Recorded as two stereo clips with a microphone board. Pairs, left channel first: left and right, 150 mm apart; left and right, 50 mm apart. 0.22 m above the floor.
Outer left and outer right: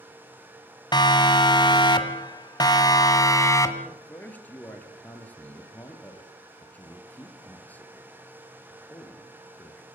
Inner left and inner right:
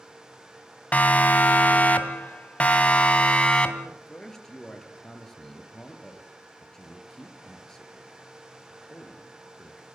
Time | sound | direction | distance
0.9 | a siren | 30° left (ahead or behind) | 2 m
3.8 | a man speaking | 10° left (ahead or behind) | 3.5 m